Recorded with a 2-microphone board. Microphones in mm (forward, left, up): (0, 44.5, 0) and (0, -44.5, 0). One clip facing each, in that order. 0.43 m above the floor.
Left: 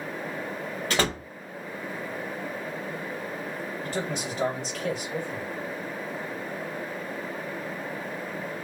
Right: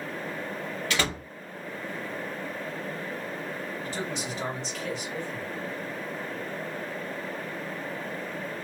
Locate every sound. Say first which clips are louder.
0.9 s a door slam: left 3 dB; 40° left (ahead or behind), 0.8 m
3.8 s a man speaking: left 4 dB; 55° left (ahead or behind), 1.6 m